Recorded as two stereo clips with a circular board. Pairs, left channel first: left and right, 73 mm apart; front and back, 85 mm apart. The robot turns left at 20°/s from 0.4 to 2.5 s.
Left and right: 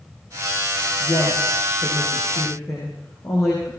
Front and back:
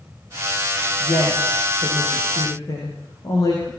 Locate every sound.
1.0 s a woman speaking: 75° left, 9 m; by 3.7 s 45° left, 9 m